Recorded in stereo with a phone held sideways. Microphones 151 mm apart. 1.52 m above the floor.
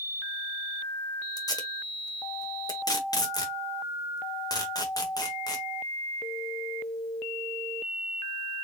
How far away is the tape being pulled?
About 1.3 m.